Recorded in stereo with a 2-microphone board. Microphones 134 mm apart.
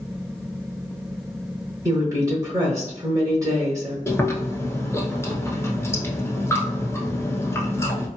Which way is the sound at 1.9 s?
25° right (ahead or behind).